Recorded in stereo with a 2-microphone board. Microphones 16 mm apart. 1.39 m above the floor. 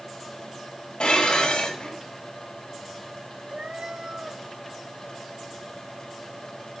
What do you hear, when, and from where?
1.0 s dishes clattering: 85° left, 5.5 m
3.5 s a cat meowing: 75° right (ahead or behind), 2 m